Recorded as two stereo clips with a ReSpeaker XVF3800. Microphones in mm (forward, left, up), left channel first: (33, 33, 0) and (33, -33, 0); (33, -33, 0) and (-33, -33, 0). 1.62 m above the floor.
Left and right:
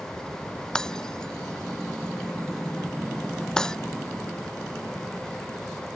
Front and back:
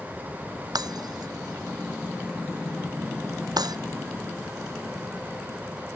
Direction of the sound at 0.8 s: 170° left.